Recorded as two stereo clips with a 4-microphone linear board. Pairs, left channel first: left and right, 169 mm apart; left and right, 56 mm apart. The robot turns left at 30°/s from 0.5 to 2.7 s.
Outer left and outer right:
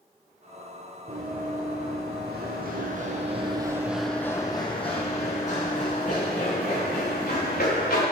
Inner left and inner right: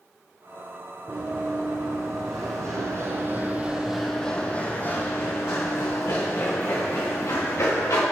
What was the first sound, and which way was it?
Running footsteps, 45° right (ahead or behind).